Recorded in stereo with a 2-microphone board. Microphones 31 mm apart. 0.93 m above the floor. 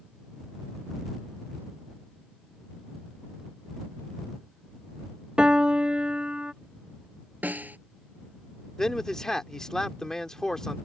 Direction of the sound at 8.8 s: 20° left (ahead or behind).